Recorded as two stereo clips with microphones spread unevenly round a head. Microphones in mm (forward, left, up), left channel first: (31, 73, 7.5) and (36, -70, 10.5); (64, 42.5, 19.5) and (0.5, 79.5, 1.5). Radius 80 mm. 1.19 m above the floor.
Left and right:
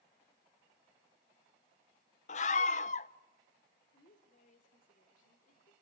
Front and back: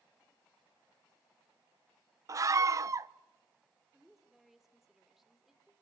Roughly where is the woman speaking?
Ahead left.